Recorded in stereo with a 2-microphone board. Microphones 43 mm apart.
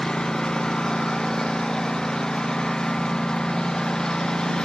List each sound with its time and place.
0.0 s a lawn mower: 15° left (ahead or behind)